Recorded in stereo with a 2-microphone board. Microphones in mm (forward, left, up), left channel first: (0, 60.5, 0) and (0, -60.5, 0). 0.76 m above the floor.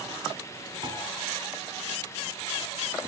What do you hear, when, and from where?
0.8 s a piano: 40° right (ahead or behind), 6 m